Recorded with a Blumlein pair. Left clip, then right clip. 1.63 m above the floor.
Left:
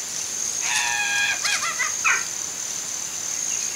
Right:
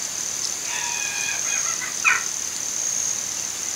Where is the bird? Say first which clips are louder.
Right 2 dB; straight ahead, 3.5 m.